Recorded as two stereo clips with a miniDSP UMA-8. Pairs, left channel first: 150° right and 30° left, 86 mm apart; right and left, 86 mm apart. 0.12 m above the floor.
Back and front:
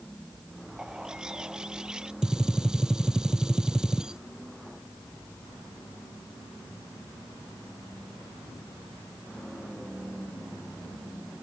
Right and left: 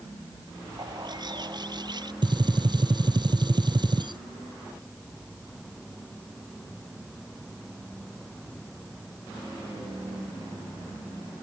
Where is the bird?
110° left.